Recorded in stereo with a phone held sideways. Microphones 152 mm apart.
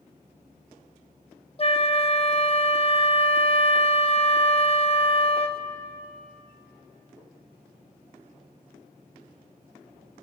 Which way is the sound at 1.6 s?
40° left (ahead or behind).